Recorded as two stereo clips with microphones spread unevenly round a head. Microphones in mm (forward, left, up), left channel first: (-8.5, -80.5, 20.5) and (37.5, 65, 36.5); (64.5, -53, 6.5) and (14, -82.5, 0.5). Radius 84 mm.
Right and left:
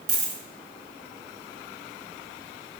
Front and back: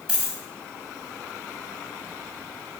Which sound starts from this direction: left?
A dropped coin, at 0.1 s.